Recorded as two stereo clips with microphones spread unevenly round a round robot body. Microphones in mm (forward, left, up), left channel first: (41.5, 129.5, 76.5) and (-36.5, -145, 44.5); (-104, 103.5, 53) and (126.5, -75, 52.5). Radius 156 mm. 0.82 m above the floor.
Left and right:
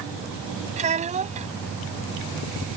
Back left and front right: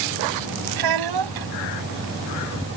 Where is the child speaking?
40° right.